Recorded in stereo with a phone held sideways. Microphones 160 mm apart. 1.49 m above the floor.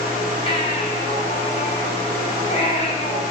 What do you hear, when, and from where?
0.5 s a baby crying: 40° left (ahead or behind), 4 m